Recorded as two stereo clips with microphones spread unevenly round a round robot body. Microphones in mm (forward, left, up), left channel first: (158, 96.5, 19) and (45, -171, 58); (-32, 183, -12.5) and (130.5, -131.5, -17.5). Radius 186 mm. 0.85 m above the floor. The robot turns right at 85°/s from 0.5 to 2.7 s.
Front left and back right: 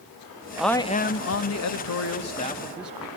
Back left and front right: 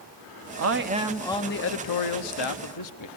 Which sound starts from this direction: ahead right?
A man speaking, at 0.6 s.